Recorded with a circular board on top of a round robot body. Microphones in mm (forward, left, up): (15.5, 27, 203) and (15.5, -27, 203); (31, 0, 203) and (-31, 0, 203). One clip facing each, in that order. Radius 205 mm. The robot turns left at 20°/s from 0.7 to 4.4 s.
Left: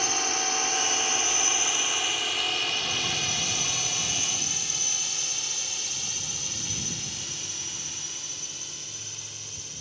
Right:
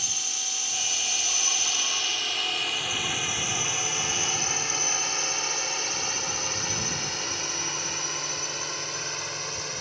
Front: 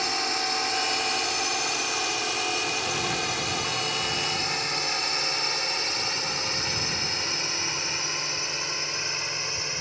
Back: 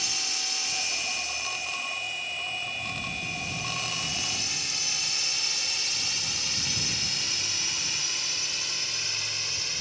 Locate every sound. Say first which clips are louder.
0.0 s a drone: left 9 dB, front 9 dB; 50° left; by 9.8 s 65° right